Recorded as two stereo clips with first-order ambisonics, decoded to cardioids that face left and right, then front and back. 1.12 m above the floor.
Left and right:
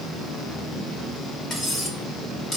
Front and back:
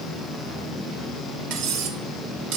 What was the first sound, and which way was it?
Cutlery clinking, 160° left.